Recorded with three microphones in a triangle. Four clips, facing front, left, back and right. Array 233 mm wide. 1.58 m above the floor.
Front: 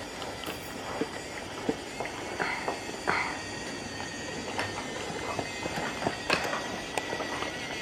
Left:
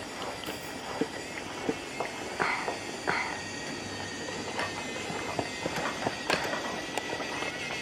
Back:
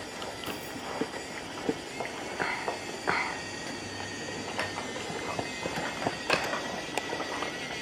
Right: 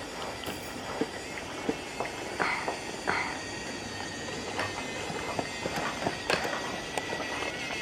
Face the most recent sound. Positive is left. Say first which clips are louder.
# right 1 dB, even
turn(degrees=-90)